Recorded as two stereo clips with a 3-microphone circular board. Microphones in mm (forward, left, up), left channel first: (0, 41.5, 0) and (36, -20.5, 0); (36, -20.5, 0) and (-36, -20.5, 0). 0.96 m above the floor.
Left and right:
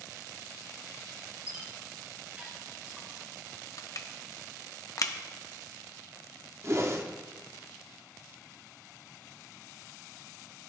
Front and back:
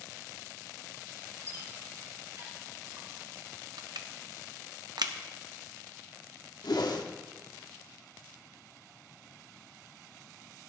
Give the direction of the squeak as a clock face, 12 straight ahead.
4 o'clock.